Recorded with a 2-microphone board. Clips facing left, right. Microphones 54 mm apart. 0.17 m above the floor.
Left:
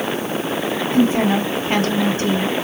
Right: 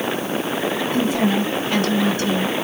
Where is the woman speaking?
35° left (ahead or behind), 1.3 m.